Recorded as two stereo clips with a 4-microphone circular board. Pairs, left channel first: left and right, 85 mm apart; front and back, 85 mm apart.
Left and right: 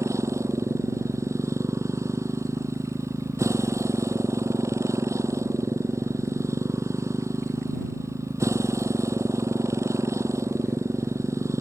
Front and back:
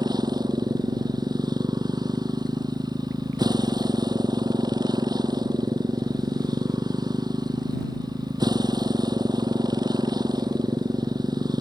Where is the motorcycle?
145° right.